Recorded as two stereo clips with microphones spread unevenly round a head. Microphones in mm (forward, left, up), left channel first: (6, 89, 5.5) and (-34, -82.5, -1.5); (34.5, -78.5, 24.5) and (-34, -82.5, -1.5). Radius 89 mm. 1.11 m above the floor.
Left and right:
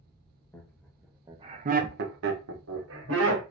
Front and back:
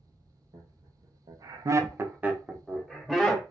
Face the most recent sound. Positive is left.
turn(degrees=-90)